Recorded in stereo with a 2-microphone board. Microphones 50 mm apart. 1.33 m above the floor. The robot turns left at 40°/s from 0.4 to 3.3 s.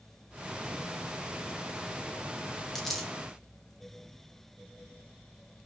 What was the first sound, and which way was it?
A dropped coin, 5° left (ahead or behind).